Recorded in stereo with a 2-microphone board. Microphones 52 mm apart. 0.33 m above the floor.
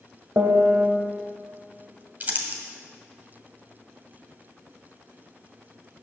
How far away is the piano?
About 1.1 m.